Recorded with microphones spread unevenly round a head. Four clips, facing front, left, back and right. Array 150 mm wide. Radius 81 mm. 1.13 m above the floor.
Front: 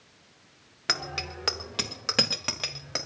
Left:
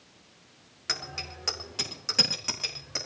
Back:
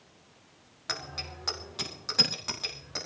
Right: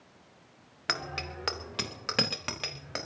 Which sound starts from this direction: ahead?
A bicycle bell, at 0.9 s.